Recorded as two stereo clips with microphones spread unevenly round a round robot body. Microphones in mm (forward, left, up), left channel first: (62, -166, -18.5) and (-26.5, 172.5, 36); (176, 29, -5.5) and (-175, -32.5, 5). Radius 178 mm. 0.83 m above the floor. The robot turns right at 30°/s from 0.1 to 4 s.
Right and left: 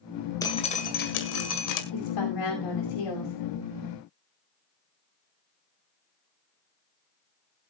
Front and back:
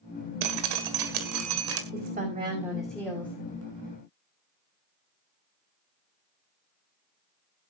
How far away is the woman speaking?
About 5.5 m.